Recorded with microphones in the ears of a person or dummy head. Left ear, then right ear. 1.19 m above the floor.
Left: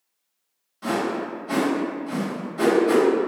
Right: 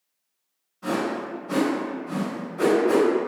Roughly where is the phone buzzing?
I don't hear a phone buzzing.